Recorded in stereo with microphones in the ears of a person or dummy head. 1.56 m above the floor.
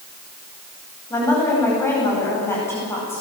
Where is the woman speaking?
15° left (ahead or behind), 10 m.